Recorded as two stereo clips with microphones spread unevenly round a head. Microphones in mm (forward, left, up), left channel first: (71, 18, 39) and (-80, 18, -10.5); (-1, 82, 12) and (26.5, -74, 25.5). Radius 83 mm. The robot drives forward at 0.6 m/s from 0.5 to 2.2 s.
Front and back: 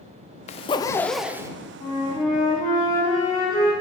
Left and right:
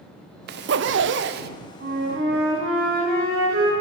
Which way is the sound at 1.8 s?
60° right.